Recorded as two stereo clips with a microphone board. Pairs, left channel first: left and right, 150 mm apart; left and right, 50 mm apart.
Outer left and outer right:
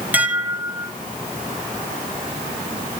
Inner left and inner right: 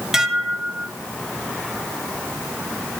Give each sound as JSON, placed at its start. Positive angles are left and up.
{"t": 0.1, "sound": "dishes clattering", "side_deg": -10, "distance_m": 2.0}